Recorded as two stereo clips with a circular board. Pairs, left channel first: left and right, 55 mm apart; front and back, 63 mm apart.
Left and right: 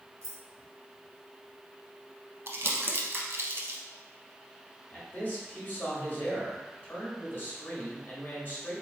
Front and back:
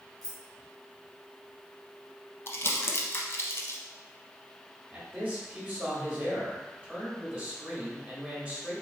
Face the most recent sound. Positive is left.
turn(degrees=125)